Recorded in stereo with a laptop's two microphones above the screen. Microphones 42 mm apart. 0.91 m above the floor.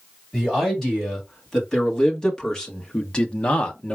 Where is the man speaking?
10° left (ahead or behind), 2.5 m; by 4.0 s 25° left (ahead or behind), 0.7 m.